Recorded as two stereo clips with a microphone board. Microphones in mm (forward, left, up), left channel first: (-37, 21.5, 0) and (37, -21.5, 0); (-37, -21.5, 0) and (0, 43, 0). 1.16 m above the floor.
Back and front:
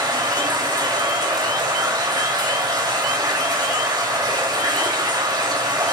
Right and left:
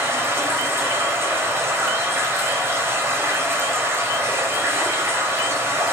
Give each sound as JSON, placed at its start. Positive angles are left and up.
{"t": 0.0, "sound": "running water", "azimuth_deg": 10, "distance_m": 2.5}